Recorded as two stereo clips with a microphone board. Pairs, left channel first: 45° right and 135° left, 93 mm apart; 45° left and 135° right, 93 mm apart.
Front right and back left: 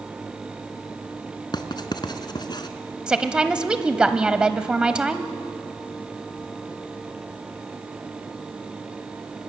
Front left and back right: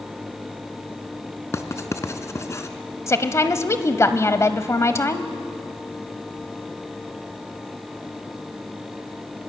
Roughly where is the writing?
Ahead.